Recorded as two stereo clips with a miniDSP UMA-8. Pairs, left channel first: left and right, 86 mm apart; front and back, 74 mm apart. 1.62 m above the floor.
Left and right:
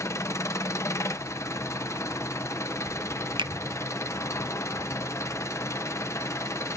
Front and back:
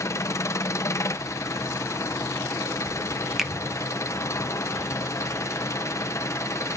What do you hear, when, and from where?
0.0 s an engine running: 40° left, 0.8 m
3.4 s a finger snap: 95° right, 1.1 m